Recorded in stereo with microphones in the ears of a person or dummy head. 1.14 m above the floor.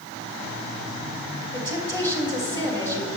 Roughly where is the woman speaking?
Centre.